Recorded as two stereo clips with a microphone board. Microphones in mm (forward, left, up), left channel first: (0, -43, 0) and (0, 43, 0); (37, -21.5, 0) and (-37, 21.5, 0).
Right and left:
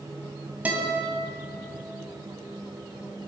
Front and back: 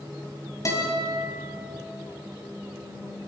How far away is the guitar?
About 3 m.